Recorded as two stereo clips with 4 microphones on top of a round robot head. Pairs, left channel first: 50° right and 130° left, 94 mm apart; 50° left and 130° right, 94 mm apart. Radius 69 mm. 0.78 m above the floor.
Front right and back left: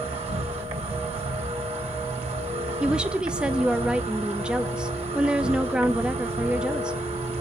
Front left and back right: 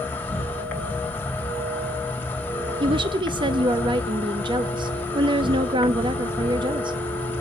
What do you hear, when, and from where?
0.0 s an insect: 125° left, 3 m
2.8 s a woman speaking: 150° right, 0.8 m